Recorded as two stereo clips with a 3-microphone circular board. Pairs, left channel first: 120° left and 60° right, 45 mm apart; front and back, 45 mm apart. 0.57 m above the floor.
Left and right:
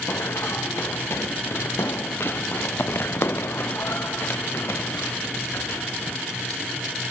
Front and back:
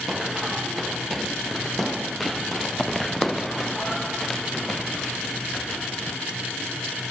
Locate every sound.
0.1 s running footsteps: 95° left; by 6.2 s 80° left